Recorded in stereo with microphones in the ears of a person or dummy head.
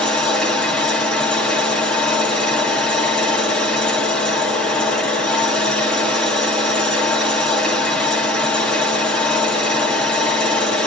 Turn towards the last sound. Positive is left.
turn(degrees=5)  # may be behind; listen again after turning